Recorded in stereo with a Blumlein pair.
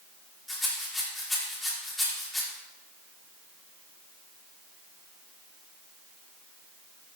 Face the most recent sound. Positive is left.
turn(degrees=10)